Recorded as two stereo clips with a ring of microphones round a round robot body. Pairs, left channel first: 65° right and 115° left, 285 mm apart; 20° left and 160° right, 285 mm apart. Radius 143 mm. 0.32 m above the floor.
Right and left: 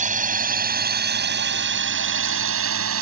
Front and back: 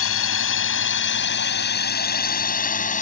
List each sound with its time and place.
0.0 s a drone: 55° left; by 3.0 s 85° left